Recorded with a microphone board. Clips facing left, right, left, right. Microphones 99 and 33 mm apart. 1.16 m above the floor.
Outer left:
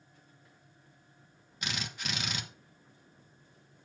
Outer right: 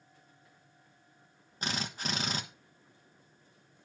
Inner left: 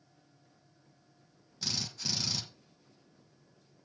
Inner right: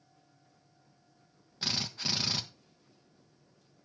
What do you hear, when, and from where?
1.6 s a drill: 35° right (ahead or behind), 1.3 m